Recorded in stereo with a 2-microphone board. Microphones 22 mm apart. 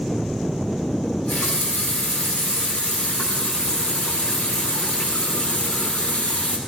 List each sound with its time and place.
1.0 s a running tap: 85° left, 7 m